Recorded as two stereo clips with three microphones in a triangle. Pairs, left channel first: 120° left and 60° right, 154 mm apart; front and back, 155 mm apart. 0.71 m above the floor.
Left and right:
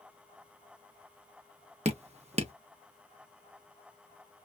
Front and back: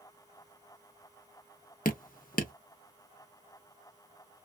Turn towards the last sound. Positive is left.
turn(degrees=-15)